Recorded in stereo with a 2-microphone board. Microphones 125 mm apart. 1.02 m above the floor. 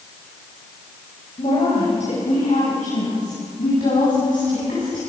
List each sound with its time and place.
1.4 s a woman speaking: 65° left (ahead or behind), 6 m; by 5.0 s 85° left, 9.5 m